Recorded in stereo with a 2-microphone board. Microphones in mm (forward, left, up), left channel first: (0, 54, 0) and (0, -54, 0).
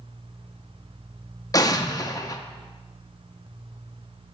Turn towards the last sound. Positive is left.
turn(degrees=35)  # may be behind; listen again after turning